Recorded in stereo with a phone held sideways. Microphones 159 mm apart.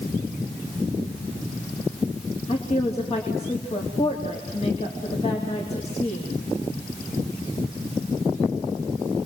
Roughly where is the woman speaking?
Left.